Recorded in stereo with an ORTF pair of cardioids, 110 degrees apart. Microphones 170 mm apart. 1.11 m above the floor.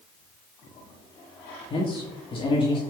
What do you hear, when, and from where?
1.7 s a man speaking: 30° left, 1.6 m